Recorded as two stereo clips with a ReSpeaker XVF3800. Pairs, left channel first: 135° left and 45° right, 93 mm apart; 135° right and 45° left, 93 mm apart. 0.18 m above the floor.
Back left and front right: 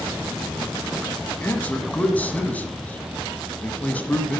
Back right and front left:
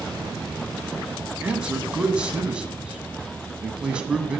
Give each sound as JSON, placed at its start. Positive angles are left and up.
{"t": 1.4, "sound": "a man speaking", "azimuth_deg": 100, "distance_m": 1.0}